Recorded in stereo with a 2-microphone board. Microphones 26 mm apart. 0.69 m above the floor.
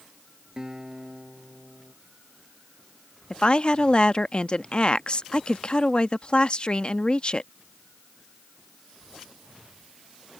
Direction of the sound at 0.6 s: 25° right (ahead or behind).